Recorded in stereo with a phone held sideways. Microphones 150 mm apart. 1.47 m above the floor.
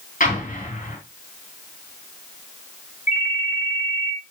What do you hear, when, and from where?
0.2 s an explosion: 65° left (ahead or behind), 4.5 m
3.1 s a ringtone: 70° left (ahead or behind), 1.7 m